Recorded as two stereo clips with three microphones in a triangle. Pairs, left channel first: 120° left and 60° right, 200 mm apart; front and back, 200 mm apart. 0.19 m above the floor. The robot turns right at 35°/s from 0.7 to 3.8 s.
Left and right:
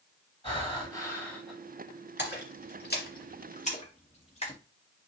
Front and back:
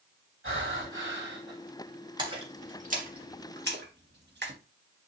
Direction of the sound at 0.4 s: 175° right.